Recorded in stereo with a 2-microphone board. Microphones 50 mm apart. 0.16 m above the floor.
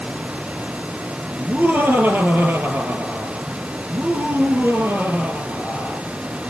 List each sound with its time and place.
1.4 s laughter: 40° right (ahead or behind), 3.5 m